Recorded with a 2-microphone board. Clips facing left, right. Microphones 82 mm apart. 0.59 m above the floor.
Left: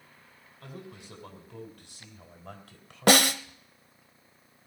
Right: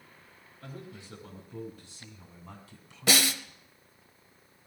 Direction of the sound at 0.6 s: 75° left (ahead or behind).